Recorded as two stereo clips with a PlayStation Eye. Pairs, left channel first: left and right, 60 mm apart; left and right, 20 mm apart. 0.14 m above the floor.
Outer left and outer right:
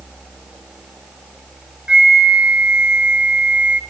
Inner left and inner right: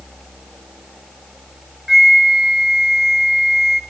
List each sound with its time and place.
1.9 s a flute: 15° right (ahead or behind), 1.5 m